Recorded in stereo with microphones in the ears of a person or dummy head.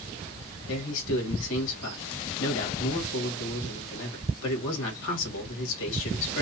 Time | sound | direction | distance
0.7 | a man speaking | 75° left (ahead or behind) | 1.9 m